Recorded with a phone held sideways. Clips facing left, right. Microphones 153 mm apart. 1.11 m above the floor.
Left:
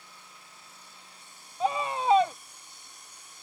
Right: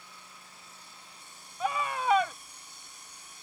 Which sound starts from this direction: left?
A scream, at 1.6 s.